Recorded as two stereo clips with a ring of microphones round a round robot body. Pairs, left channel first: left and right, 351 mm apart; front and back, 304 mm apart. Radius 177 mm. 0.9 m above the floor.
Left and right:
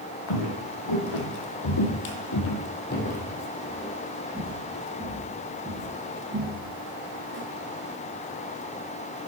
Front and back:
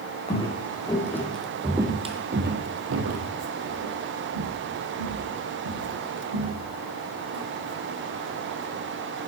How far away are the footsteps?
About 2.5 m.